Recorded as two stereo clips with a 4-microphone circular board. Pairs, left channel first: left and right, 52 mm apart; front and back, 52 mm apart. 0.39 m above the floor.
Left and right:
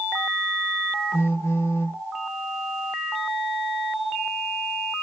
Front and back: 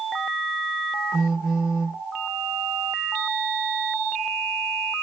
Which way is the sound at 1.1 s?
90° left.